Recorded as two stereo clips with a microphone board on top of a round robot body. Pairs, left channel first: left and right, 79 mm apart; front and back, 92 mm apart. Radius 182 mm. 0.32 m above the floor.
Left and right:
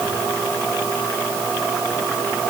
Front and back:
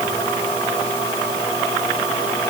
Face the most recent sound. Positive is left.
No sound to turn to.